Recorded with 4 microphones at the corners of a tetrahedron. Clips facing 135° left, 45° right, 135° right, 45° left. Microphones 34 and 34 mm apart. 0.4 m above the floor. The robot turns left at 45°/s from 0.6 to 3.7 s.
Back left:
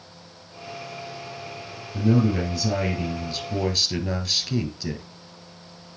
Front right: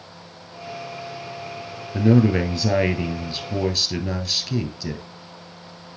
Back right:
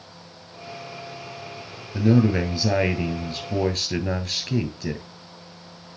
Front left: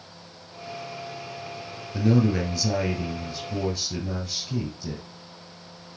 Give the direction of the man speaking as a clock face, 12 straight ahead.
2 o'clock.